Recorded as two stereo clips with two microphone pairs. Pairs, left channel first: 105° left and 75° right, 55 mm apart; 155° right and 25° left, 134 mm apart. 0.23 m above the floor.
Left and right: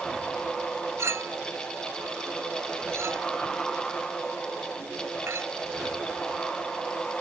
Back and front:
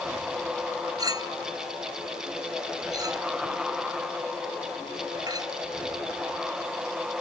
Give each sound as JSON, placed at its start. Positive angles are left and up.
{"t": 1.0, "sound": "a clink", "azimuth_deg": -40}